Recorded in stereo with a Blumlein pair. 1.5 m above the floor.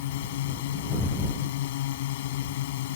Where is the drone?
55° left.